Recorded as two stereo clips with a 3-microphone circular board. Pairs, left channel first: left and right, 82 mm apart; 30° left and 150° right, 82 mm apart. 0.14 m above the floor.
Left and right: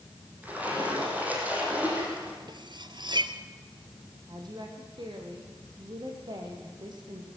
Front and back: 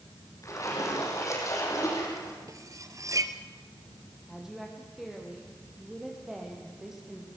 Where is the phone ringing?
No phone ringing in this recording.